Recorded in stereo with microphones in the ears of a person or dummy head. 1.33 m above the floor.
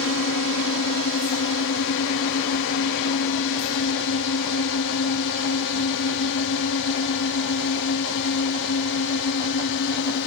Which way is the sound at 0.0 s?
60° left (ahead or behind).